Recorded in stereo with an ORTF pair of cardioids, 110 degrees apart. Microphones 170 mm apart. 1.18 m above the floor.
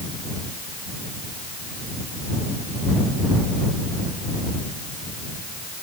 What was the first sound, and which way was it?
Only background noise.